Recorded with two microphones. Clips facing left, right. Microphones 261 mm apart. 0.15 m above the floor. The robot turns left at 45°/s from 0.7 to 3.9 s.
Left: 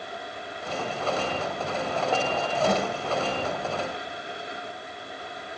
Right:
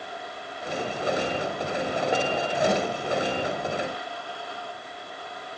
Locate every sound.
2.7 s a snare drum: 10° right (ahead or behind), 1.4 m; by 2.9 s centre (ahead or behind), 1.4 m